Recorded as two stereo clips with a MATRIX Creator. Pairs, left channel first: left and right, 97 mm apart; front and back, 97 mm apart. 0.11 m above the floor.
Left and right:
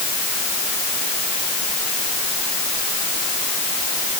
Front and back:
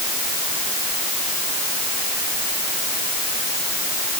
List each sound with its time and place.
Only background noise.